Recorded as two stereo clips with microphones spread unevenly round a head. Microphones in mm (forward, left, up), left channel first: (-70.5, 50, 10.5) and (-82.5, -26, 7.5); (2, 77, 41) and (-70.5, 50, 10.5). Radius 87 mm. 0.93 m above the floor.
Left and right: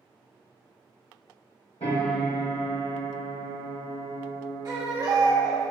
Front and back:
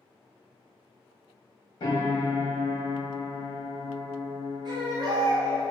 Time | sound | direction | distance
1.8 | a piano | 50° left | 1.4 m
4.7 | a baby crying | 135° right | 1.1 m